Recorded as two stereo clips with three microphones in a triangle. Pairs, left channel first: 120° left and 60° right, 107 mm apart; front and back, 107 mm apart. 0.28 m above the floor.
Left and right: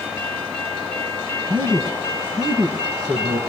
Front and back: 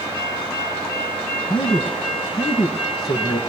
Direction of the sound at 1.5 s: 30° right.